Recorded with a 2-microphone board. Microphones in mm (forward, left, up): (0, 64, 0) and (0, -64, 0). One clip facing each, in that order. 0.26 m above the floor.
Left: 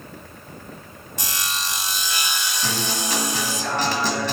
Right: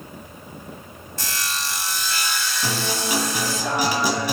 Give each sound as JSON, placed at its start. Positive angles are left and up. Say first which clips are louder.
{"t": 1.2, "sound": "sawing", "louder": "even", "side_deg": 20, "distance_m": 0.9}
{"t": 2.6, "sound": "a guitar", "louder": "right 1 dB", "side_deg": -10, "distance_m": 1.0}